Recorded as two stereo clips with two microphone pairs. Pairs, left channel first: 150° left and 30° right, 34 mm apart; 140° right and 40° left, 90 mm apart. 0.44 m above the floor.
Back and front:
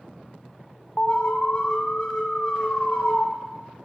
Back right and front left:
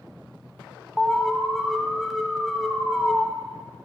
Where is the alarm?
145° left, 0.6 m.